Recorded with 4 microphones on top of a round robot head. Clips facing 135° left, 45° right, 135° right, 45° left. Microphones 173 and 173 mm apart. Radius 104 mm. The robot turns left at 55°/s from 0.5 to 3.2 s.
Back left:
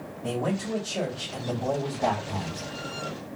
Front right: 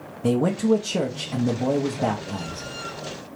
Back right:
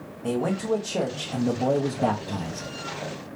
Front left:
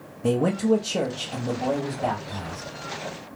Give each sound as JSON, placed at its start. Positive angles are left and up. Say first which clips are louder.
{"t": 0.2, "sound": "a man speaking", "louder": "front right 9 dB, front left 4 dB", "azimuth_deg": -15, "distance_m": 0.7}